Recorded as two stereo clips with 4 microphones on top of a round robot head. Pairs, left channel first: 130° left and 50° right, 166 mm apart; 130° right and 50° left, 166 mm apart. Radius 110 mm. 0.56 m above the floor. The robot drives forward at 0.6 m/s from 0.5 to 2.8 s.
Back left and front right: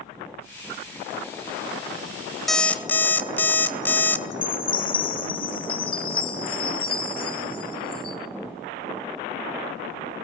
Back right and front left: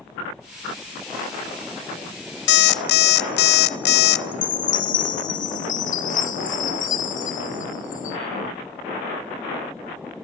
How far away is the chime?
About 2 m.